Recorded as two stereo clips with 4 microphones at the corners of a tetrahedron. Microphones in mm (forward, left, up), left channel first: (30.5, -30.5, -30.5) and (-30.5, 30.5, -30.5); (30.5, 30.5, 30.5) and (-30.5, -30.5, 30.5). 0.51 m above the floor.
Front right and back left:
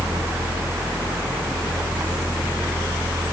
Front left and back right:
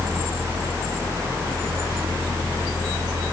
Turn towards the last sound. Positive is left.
No sound to turn to.